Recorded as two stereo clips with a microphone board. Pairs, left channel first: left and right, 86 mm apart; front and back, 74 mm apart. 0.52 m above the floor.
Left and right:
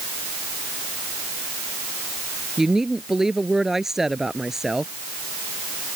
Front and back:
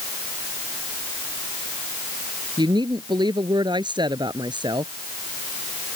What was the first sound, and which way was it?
A woman speaking, 175° right.